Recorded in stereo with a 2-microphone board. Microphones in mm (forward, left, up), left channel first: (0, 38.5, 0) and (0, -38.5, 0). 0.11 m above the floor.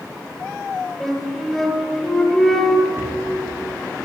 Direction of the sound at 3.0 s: 40° right (ahead or behind).